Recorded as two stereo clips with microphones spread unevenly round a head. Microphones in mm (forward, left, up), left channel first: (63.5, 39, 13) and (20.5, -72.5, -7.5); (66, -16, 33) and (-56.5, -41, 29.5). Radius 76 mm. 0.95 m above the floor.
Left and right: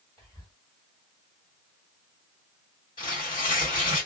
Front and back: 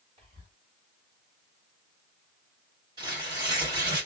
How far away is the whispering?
About 2 m.